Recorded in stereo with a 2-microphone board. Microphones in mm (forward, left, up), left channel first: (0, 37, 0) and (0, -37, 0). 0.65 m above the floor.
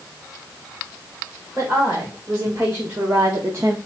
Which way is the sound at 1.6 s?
25° right (ahead or behind).